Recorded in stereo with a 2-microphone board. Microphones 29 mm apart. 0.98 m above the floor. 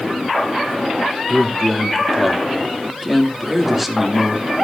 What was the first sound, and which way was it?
A man speaking, 5° right (ahead or behind).